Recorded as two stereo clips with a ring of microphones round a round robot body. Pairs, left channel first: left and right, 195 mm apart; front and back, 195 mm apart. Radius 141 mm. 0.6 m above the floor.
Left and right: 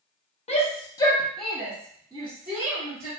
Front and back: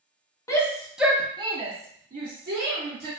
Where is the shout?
65° left, 0.8 m; by 3.1 s 145° right, 1.3 m.